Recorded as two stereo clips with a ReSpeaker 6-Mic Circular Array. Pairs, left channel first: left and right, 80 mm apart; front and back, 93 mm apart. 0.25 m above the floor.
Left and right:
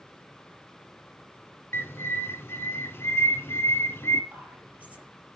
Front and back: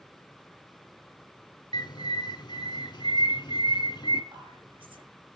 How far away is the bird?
About 0.7 m.